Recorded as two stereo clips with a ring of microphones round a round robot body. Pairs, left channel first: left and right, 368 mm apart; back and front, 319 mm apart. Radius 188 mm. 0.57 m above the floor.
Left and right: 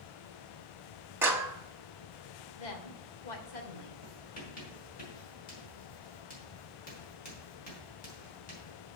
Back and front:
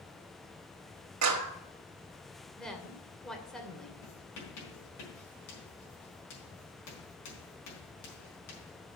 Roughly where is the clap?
Ahead.